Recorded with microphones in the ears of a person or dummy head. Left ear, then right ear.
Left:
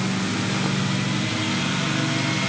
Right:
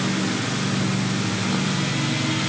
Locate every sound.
Only background noise.